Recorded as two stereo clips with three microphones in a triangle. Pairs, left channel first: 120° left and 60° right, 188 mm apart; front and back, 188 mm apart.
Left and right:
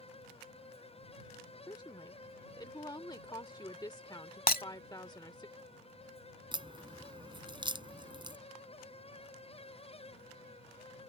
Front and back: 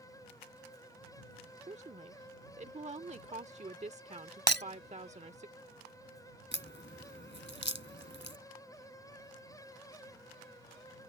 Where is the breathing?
I don't hear breathing.